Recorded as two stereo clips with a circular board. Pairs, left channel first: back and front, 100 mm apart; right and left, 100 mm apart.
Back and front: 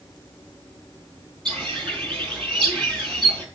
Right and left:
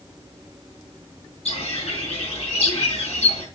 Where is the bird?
100° right, 4 m.